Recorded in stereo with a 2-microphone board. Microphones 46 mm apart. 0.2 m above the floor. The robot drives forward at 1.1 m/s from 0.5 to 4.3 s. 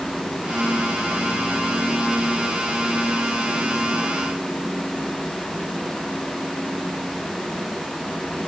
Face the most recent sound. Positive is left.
No sound to turn to.